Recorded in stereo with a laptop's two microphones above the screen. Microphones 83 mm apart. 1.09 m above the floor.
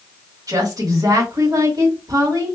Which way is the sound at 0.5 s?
45° right (ahead or behind).